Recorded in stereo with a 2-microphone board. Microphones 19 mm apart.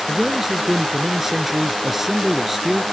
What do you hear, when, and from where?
0.1 s a man speaking: 15° right (ahead or behind); by 2.8 s 10° right (ahead or behind)